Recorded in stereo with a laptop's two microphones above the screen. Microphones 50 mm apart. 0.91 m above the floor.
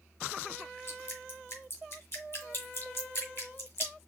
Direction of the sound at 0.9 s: 50° left (ahead or behind).